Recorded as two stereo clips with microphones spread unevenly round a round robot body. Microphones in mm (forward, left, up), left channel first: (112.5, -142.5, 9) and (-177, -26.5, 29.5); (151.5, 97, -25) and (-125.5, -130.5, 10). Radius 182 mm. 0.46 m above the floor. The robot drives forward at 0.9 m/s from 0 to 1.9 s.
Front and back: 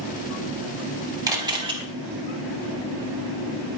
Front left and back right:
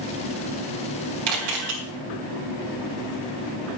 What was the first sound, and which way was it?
A camera shutter, 120° right.